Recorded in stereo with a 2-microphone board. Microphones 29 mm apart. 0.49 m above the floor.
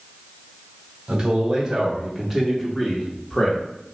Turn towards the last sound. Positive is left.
turn(degrees=25)  # may be behind; listen again after turning